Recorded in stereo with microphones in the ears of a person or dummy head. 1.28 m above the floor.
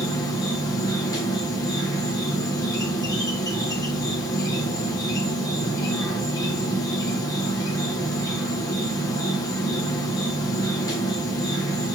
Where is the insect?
20° left (ahead or behind), 1.9 m.